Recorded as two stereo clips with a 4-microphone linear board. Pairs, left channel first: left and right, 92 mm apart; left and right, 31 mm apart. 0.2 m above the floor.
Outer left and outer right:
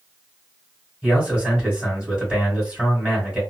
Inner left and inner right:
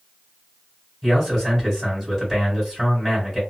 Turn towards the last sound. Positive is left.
turn(degrees=-15)  # may be behind; listen again after turning